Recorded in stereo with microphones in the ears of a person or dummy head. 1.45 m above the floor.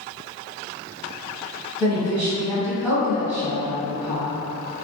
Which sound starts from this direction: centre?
A woman speaking, at 1.8 s.